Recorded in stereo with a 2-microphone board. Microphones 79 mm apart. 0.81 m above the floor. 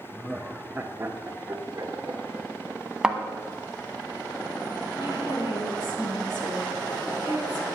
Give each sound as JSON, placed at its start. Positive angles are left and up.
{"t": 0.1, "sound": "laughter", "side_deg": 15, "distance_m": 0.8}
{"t": 3.0, "sound": "a thud", "side_deg": -10, "distance_m": 0.9}
{"t": 4.9, "sound": "a woman speaking", "side_deg": 75, "distance_m": 3.5}